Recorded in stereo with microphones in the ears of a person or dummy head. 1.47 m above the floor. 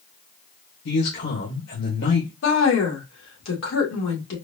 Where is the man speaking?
70° left (ahead or behind), 1.7 m.